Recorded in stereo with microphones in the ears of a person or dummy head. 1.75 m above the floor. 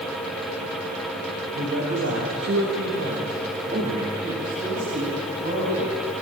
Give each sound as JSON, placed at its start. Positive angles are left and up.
{"t": 1.6, "sound": "a man speaking", "side_deg": -70, "distance_m": 3.5}